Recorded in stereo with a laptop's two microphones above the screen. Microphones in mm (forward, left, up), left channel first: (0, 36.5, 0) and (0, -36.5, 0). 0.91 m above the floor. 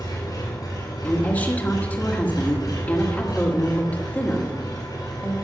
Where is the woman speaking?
25° left (ahead or behind), 1.6 m.